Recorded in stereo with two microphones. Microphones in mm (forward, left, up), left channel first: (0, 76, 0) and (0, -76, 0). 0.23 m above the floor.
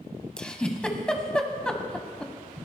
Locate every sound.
0.4 s a giggle: 5° left (ahead or behind), 1.2 m